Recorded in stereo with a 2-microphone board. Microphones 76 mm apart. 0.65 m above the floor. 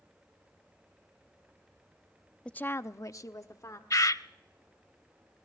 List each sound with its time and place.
2.5 s a woman speaking: 10° left (ahead or behind), 0.6 m; by 3.8 s 45° left (ahead or behind), 1.6 m
3.9 s a bird: 50° left (ahead or behind), 0.5 m